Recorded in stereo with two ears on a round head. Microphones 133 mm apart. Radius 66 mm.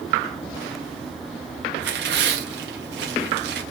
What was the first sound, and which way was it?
Tearing paper, 85° right.